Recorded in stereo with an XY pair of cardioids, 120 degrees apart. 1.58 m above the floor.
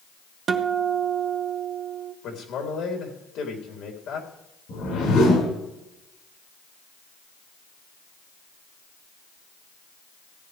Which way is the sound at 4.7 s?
70° left.